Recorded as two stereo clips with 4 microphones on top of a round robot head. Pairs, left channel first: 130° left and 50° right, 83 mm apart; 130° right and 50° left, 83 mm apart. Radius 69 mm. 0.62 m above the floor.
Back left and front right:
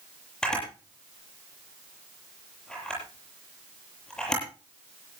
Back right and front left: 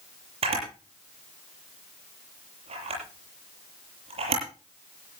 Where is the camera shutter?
50° left, 8.5 m.